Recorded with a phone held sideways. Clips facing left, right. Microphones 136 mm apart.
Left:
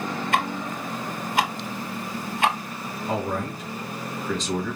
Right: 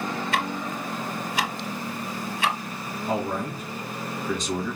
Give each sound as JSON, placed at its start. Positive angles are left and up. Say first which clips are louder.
{"t": 0.3, "sound": "ticking", "louder": "left 2 dB", "side_deg": 55, "distance_m": 1.2}
{"t": 3.1, "sound": "a man speaking", "louder": "even", "side_deg": -5, "distance_m": 2.5}